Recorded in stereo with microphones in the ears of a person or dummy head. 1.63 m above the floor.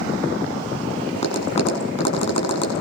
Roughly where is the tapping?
Left.